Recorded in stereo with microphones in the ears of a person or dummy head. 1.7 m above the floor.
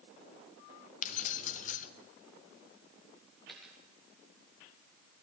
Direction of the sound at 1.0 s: 45° left (ahead or behind).